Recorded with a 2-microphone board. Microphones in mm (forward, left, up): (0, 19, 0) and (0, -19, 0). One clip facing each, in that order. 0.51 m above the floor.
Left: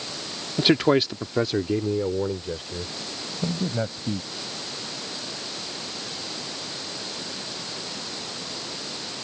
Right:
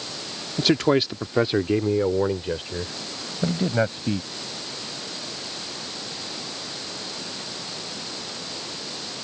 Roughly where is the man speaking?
Left.